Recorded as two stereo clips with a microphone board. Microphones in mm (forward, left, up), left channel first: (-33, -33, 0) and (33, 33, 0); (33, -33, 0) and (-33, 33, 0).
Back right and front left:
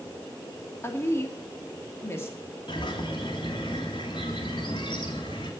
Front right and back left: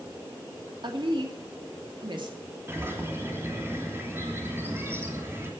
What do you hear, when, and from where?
0.8 s a woman speaking: 165° left, 2.5 m
2.7 s a bird: 160° right, 3 m